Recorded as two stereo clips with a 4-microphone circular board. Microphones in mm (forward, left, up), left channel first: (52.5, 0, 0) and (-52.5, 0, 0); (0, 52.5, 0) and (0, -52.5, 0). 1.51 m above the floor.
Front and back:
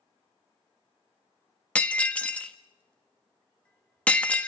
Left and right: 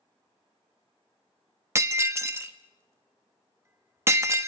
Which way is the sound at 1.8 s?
65° right.